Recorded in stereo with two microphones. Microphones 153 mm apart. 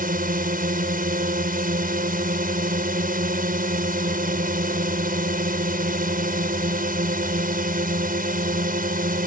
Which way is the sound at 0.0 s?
70° right (ahead or behind).